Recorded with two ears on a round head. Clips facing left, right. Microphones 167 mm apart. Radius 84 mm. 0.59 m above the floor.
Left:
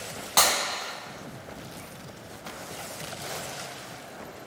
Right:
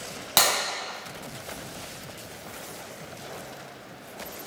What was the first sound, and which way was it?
Breaking glass, 55° right (ahead or behind).